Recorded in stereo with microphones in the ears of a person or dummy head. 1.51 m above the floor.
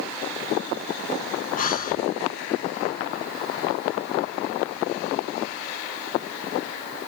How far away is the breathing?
About 0.8 m.